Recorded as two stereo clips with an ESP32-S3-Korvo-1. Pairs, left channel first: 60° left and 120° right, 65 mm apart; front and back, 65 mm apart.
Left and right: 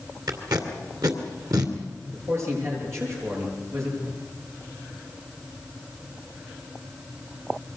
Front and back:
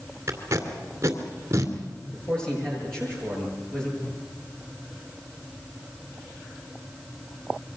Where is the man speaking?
80° right, 9.5 m.